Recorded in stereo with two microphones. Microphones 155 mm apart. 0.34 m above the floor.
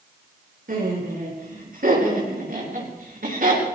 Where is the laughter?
75° right (ahead or behind), 5.5 m; by 3.7 s 70° right (ahead or behind), 5.5 m.